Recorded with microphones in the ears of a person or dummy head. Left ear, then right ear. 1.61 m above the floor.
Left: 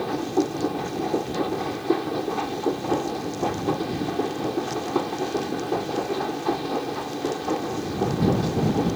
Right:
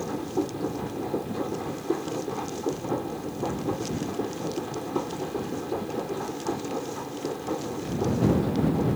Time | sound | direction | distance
0.0 | a machine running | 35° left (ahead or behind) | ?